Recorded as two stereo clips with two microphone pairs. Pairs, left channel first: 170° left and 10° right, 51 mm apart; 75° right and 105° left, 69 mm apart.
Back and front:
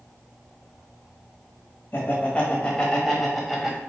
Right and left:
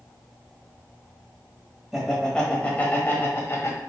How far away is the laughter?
About 1.2 m.